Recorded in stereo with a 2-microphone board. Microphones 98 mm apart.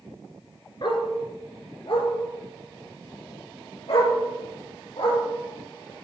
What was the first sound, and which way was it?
A dog barking, 55° left (ahead or behind).